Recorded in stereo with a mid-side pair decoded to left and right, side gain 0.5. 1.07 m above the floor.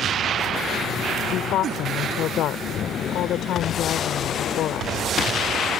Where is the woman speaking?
65° left.